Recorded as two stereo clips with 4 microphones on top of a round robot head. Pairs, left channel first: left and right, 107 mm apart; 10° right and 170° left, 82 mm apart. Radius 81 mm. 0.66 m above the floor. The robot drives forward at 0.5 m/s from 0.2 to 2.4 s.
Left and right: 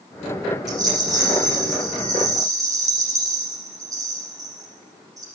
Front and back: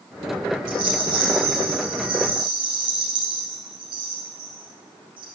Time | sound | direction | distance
0.7 | a rattle | 145° right | 7 m